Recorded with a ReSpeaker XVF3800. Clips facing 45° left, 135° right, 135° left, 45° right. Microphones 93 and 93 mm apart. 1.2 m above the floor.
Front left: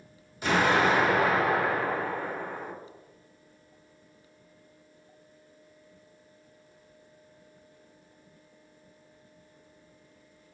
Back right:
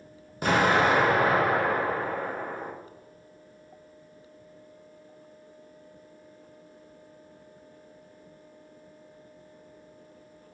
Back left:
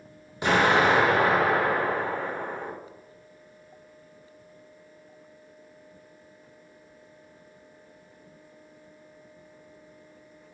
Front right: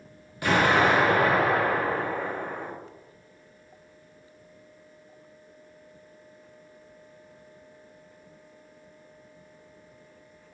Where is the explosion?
160° right, 0.9 m.